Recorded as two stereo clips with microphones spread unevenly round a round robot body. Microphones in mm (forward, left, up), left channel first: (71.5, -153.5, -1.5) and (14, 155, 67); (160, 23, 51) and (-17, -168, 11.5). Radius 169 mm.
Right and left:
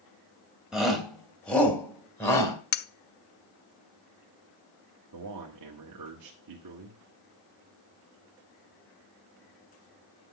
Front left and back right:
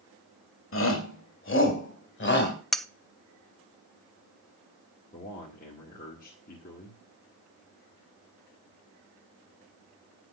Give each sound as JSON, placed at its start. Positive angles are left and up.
{"t": 0.7, "sound": "a shout", "azimuth_deg": 10, "distance_m": 2.5}
{"t": 2.7, "sound": "cutlery clinking", "azimuth_deg": -50, "distance_m": 0.6}
{"t": 5.1, "sound": "a man speaking", "azimuth_deg": 105, "distance_m": 1.7}